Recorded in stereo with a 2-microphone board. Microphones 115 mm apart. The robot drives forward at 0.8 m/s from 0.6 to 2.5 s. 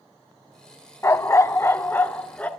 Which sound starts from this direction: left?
A dog barking, at 1.0 s.